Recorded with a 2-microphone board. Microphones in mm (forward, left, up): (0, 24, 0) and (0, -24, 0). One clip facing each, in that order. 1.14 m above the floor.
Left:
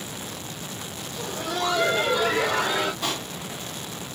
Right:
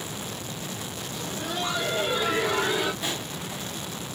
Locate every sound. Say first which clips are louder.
1.2 s laughter: left 4 dB; 65° left (ahead or behind), 1.3 m
3.0 s a pop: left 2 dB; 65° left (ahead or behind), 2 m